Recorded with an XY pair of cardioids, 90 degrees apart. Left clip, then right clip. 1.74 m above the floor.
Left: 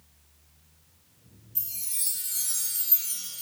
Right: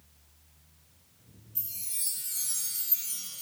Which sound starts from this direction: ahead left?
A chime, at 1.6 s.